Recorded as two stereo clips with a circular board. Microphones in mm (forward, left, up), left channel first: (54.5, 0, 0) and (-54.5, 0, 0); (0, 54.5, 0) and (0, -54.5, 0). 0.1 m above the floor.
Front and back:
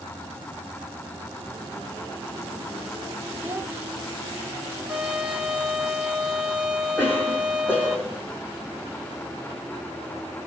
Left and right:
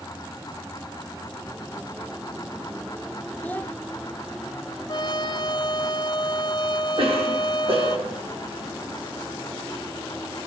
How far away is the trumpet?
About 1.5 m.